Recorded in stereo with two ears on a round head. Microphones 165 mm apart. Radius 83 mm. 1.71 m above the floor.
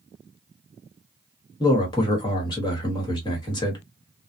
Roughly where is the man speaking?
Left.